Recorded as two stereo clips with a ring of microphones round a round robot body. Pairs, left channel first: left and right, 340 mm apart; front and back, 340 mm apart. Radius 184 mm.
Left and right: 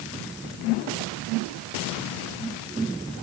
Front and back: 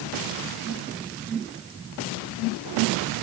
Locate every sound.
Only background noise.